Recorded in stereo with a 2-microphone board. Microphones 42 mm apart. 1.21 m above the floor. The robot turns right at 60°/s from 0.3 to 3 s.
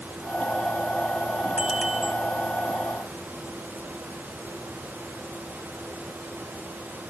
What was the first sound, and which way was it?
A bicycle bell, 30° right (ahead or behind).